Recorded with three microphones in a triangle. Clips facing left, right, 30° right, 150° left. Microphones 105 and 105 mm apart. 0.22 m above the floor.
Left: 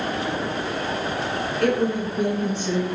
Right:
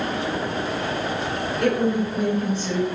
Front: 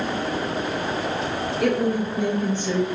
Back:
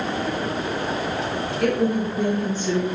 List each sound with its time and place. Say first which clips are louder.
1.6 s a woman speaking: right 1 dB, back 1 dB; 115° right, 1.0 m; by 2.9 s 15° left, 1.1 m